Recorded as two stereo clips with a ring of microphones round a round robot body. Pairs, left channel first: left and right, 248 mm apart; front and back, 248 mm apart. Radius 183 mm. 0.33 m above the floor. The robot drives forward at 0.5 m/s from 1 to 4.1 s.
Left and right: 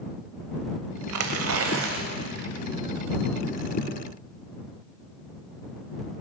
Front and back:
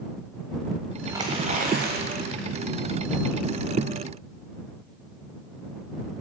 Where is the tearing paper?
100° right, 0.8 m; by 2.5 s 140° right, 1.2 m.